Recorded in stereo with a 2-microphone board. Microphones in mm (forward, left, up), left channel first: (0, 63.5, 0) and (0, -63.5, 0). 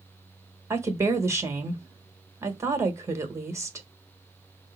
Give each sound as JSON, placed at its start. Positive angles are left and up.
{"t": 0.7, "sound": "a woman speaking", "side_deg": -20, "distance_m": 1.1}